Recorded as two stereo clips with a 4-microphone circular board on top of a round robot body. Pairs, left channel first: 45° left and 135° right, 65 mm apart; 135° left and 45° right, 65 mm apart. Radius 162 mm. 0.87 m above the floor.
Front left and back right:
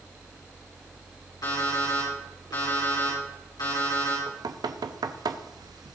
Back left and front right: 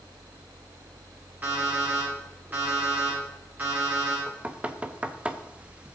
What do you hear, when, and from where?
1.4 s an alarm clock: 20° left, 5.5 m
4.3 s knocking: 115° right, 0.7 m